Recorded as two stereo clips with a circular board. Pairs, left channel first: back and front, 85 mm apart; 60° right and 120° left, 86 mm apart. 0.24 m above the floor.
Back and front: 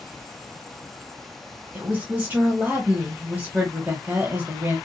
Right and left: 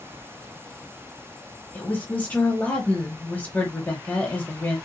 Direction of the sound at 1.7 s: 30° right.